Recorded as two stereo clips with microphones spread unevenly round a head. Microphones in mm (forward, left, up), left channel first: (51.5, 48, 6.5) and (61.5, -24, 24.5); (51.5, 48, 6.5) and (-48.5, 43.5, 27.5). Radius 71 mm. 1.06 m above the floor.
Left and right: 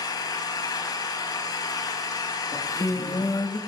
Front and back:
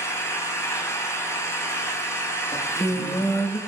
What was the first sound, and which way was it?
An engine running, 65° left.